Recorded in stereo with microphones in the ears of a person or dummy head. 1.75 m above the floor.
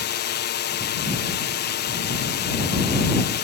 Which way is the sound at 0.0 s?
45° left (ahead or behind).